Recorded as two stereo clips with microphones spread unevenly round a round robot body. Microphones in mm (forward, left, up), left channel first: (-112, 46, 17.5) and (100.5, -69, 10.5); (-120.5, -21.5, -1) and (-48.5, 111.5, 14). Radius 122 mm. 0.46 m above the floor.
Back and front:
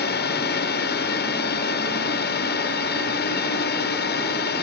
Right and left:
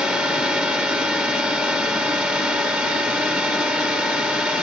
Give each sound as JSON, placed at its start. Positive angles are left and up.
{"t": 0.0, "sound": "a drone", "azimuth_deg": 145}